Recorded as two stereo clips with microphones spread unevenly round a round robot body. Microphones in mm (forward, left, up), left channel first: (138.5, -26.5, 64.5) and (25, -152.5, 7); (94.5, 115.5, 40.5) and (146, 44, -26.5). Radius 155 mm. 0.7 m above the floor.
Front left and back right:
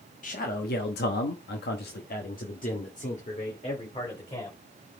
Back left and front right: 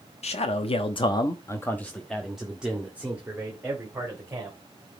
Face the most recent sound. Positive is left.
turn(degrees=-10)